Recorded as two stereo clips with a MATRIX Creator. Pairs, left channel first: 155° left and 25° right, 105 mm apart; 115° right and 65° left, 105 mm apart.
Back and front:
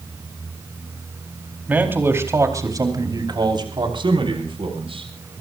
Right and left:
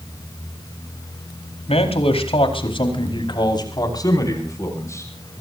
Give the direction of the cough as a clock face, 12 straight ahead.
No cough in this recording.